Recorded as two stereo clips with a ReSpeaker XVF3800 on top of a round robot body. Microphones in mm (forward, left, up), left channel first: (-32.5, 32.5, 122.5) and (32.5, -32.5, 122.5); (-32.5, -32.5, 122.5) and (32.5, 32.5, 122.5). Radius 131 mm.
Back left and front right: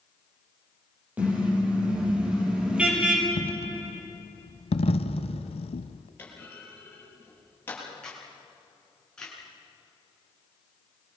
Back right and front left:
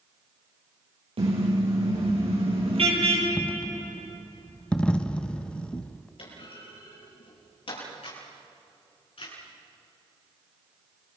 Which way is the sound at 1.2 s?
30° left.